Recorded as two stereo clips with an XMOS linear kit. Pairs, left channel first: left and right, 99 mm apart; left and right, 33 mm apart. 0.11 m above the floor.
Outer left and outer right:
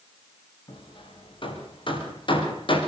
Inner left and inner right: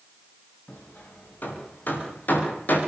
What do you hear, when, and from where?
0.7 s hammering: 60° left (ahead or behind), 10 m